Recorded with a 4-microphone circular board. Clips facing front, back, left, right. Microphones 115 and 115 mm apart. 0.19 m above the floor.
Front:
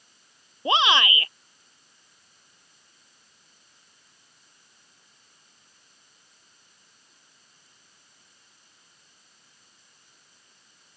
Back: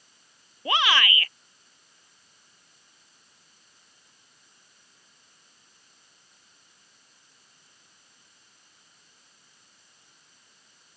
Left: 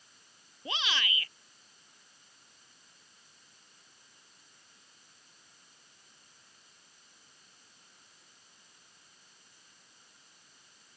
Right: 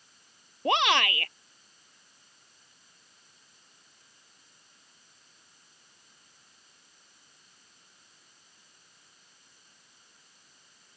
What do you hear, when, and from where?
0.7 s a shout: 70° right